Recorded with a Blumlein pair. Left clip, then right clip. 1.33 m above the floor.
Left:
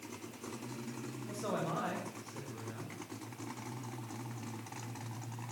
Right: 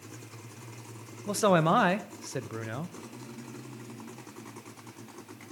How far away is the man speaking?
About 0.8 m.